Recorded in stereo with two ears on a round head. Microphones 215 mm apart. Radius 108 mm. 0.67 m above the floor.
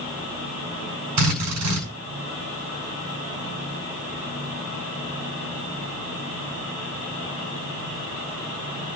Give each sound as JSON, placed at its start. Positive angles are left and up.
{"t": 1.2, "sound": "a drill", "side_deg": -80, "distance_m": 8.0}